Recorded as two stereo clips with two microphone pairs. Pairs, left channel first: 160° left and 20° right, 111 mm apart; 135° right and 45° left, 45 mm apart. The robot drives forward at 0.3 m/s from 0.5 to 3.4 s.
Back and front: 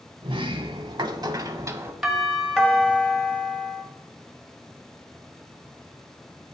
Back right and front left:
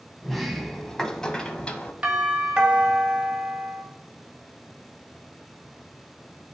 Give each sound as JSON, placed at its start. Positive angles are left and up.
{"t": 0.2, "sound": "a sliding door", "azimuth_deg": -45, "distance_m": 0.8}
{"t": 2.0, "sound": "a doorbell", "azimuth_deg": 60, "distance_m": 1.4}